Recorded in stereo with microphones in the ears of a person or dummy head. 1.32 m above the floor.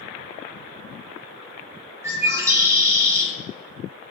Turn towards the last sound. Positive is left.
turn(degrees=-15)  # may be behind; listen again after turning